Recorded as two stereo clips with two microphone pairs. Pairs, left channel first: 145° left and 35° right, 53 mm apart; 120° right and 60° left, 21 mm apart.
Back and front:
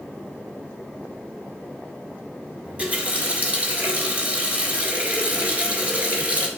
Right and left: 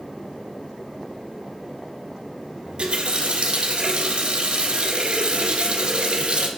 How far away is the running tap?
About 1.7 m.